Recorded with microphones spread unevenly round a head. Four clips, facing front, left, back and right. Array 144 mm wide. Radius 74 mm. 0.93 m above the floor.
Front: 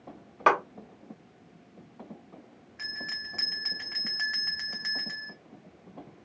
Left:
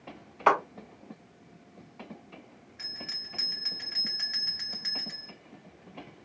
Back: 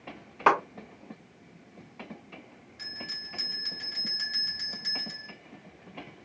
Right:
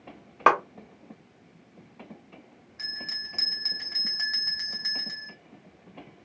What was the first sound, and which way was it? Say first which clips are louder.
A clap: right 3 dB, even; 90° right.